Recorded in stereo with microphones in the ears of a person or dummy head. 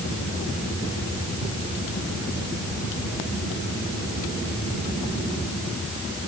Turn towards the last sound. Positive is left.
No sound to turn to.